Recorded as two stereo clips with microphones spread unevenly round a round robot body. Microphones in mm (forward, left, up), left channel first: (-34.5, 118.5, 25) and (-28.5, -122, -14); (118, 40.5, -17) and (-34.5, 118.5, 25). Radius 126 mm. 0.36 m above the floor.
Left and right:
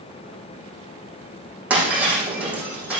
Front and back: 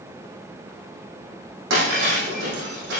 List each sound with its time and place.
1.7 s breaking glass: 175° right, 6 m